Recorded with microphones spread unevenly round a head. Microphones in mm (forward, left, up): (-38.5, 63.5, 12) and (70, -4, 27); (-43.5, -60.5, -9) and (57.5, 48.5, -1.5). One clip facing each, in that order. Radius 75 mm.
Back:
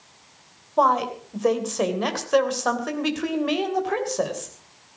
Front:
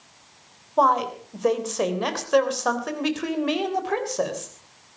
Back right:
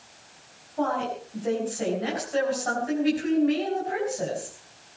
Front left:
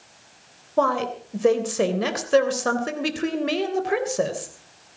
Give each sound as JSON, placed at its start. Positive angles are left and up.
{"t": 0.8, "sound": "a woman speaking", "azimuth_deg": 60, "distance_m": 3.0}